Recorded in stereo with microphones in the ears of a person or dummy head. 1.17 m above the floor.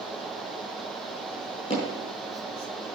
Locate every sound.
1.7 s hammering: 40° left (ahead or behind), 5.5 m